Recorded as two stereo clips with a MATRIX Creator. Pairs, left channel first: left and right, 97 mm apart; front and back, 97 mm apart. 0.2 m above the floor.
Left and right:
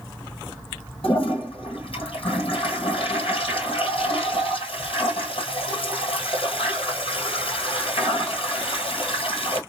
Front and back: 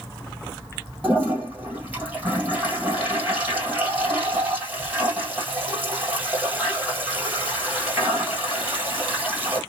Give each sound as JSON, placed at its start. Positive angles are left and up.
{"t": 1.0, "sound": "a toilet flushing", "azimuth_deg": 110, "distance_m": 1.6}